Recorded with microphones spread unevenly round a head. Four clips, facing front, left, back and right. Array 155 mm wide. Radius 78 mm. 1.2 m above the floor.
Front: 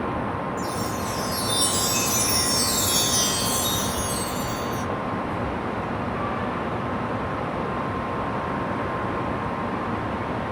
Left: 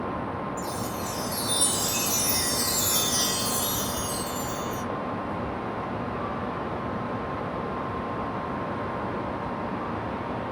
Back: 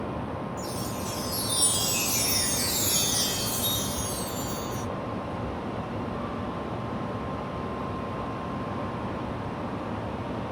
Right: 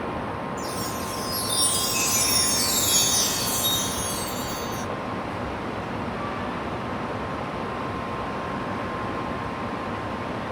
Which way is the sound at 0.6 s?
115° left.